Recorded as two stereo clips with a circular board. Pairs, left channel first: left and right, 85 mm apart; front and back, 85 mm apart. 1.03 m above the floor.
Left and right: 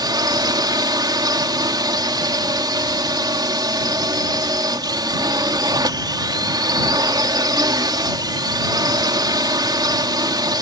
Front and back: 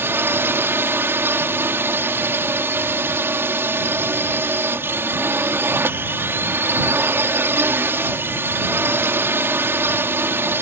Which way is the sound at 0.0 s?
120° right.